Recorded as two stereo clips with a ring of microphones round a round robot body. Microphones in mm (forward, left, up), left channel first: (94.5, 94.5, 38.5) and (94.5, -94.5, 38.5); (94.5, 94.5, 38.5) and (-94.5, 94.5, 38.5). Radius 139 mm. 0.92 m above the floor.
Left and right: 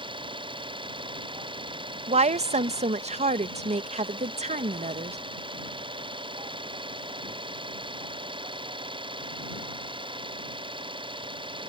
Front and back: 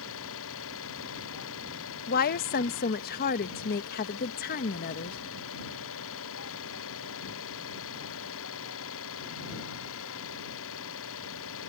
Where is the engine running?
25° right.